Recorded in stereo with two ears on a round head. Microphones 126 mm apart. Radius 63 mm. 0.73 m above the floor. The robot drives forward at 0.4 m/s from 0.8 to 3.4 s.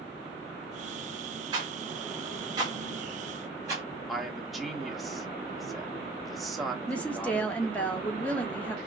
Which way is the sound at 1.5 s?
30° right (ahead or behind).